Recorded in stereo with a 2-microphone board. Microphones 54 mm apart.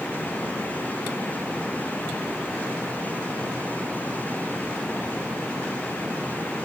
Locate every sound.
Only background noise.